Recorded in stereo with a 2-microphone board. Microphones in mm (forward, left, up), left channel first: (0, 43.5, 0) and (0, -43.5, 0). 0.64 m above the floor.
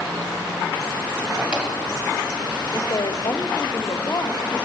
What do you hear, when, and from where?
1.4 s a drawer: 10° right (ahead or behind), 2 m
2.7 s a woman speaking: 50° left (ahead or behind), 1.1 m